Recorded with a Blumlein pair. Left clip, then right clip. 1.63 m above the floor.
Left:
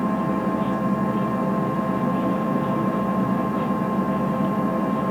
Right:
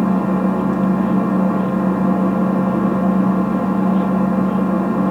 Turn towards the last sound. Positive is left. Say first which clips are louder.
# right 5 dB
turn(degrees=-20)